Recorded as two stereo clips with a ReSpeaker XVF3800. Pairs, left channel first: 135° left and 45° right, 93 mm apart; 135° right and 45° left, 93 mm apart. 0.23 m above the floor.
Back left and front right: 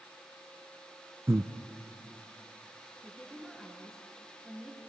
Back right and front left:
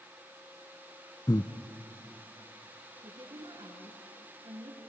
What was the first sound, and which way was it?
Breathing, 100° right.